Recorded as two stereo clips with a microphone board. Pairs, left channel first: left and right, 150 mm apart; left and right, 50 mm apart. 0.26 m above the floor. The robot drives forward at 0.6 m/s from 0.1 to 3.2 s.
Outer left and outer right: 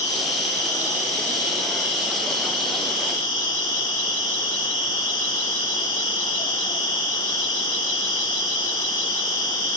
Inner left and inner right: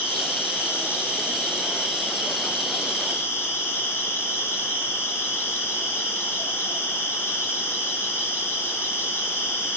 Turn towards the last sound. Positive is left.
turn(degrees=60)  # may be behind; listen again after turning